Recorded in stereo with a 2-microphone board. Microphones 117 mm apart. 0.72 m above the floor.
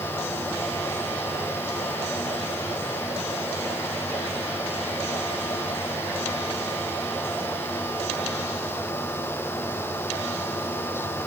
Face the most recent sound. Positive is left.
No sound to turn to.